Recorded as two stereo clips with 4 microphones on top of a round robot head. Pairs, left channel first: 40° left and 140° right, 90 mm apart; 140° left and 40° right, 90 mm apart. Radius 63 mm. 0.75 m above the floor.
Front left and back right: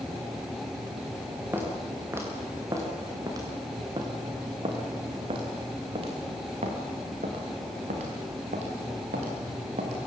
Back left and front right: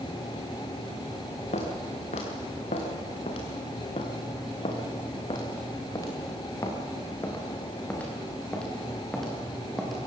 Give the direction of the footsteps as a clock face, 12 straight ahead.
7 o'clock.